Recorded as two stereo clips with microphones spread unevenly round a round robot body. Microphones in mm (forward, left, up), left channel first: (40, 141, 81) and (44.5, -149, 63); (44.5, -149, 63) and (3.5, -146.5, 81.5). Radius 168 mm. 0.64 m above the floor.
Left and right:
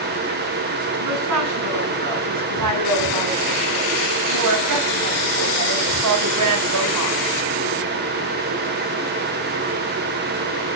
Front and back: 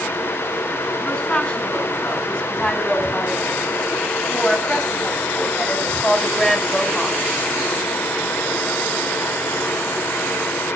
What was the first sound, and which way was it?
A woman speaking, 65° right.